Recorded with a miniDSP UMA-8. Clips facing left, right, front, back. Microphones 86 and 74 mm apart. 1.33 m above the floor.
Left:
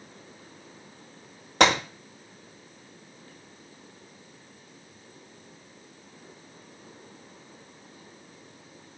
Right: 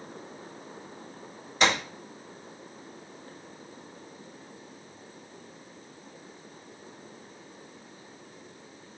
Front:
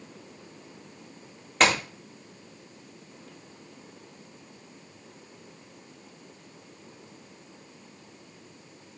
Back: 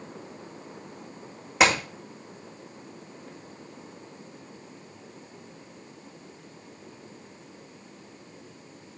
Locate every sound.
1.6 s a gunshot: 100° left, 2 m